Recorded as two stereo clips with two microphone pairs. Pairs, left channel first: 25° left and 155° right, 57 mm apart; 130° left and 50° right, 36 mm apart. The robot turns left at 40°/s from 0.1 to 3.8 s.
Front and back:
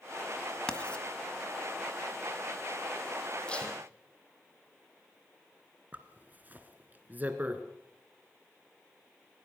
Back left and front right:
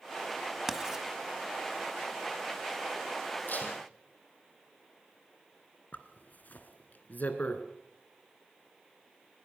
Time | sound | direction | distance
0.7 | writing | straight ahead | 1.6 m
3.5 | tape being pulled | 100° left | 3.5 m
5.9 | a zipper | 150° left | 1.8 m